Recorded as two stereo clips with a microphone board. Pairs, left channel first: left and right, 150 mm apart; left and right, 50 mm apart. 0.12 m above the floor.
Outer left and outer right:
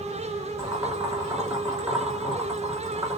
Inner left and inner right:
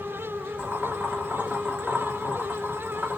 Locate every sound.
0.6 s boiling: 20° right (ahead or behind), 1.7 m